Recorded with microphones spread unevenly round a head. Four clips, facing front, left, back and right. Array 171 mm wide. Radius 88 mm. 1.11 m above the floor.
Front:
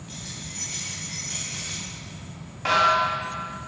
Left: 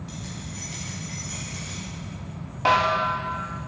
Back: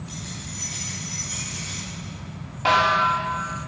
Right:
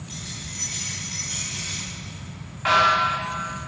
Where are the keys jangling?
60° left, 4.5 m; by 1.8 s 45° left, 3.5 m.